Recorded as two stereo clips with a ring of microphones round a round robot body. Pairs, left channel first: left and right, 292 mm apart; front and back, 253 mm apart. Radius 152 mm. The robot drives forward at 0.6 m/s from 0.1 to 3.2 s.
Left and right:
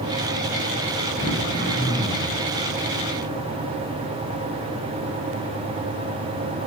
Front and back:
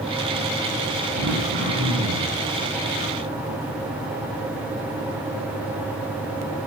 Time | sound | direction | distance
1.2 | throat clearing | 165° left | 6 m